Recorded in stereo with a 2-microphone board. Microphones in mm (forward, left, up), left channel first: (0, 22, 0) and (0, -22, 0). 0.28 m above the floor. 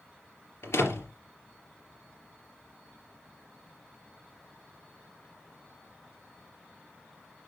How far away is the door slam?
About 3.5 m.